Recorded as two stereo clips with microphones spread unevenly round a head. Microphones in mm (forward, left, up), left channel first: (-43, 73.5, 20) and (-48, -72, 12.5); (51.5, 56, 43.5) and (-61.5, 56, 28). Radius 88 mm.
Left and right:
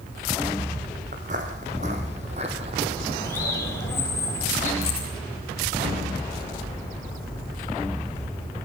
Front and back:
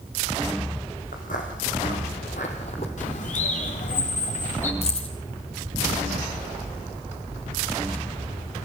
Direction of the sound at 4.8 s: 30° left.